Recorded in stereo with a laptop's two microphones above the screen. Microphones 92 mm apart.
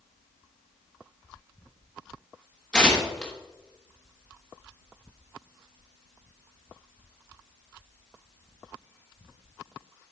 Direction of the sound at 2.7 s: 10° left (ahead or behind).